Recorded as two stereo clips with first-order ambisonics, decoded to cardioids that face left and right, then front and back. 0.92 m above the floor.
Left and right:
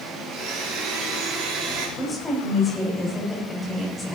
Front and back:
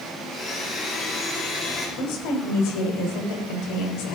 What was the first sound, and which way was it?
A blender, 55° right.